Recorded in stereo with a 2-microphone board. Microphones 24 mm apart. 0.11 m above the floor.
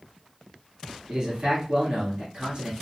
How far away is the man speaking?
About 1.8 m.